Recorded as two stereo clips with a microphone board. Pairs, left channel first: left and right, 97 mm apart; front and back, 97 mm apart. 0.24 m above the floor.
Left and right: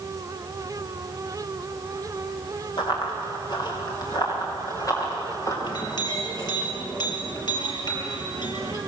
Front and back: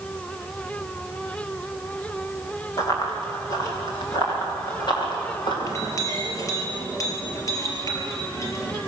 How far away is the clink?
About 4.5 m.